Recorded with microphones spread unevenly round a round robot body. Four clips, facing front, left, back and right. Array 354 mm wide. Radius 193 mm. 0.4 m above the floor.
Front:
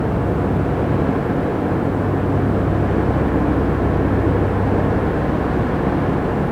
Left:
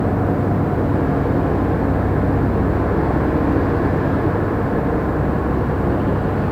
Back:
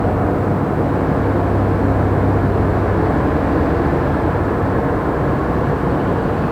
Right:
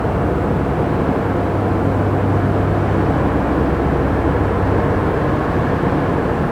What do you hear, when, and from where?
Only background noise.